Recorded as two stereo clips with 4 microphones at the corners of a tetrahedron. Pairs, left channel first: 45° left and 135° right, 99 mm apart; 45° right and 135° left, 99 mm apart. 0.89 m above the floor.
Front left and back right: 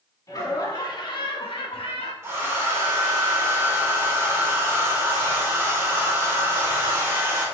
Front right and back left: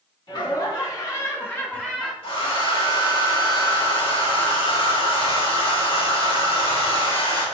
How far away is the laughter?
About 1.4 m.